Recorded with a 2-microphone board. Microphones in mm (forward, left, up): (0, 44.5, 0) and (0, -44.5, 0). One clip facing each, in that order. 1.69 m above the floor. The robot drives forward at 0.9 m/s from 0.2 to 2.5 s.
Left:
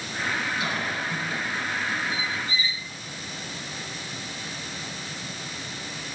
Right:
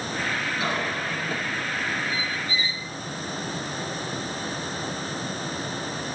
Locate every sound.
0.6 s a cough: 35° right (ahead or behind), 7 m; by 1.4 s 40° right (ahead or behind), 6.5 m
2.1 s a squeak: 80° right, 8.5 m